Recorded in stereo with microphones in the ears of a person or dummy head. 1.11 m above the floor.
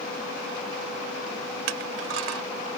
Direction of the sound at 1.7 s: 75° right (ahead or behind).